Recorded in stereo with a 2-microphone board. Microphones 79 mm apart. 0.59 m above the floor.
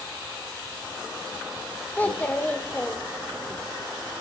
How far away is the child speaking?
About 0.9 m.